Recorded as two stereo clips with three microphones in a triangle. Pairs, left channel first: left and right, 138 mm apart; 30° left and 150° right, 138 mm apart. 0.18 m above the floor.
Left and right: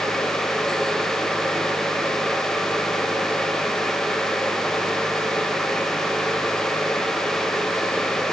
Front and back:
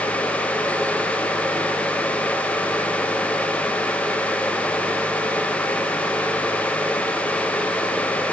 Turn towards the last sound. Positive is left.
No sound to turn to.